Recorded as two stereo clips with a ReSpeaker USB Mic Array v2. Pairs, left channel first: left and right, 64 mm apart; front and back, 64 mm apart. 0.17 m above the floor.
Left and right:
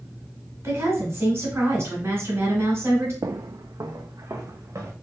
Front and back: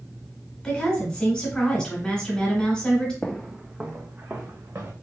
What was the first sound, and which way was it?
A woman speaking, 70° right.